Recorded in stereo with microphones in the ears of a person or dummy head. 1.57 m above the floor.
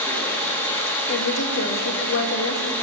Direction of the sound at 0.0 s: 10° left (ahead or behind).